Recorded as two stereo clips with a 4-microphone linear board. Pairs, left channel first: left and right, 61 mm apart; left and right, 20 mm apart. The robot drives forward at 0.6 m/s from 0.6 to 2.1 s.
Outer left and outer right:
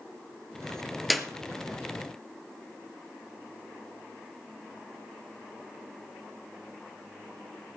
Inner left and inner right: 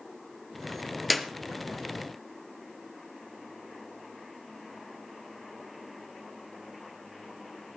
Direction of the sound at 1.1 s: Centre (ahead or behind).